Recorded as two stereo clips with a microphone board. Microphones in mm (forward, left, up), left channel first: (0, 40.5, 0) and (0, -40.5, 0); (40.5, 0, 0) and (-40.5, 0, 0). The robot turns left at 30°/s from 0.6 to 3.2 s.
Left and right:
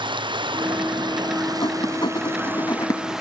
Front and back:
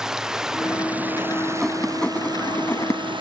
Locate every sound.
0.0 s running water: 95° right; by 3.2 s 175° right
1.6 s writing: 90° left; by 3.0 s 45° left